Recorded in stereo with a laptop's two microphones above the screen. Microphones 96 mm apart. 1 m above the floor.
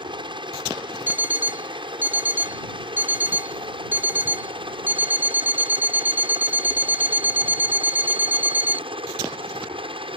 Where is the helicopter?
55° right (ahead or behind); by 10.2 s 65° right (ahead or behind).